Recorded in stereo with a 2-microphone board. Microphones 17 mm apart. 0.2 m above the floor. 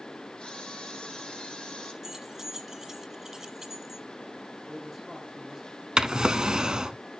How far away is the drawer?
About 0.6 m.